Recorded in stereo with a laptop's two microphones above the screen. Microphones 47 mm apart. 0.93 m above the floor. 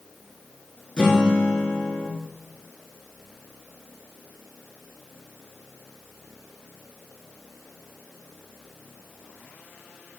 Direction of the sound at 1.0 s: 15° left (ahead or behind).